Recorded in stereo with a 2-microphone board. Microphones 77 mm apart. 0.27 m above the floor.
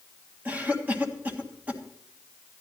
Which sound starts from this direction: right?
A cough, at 0.5 s.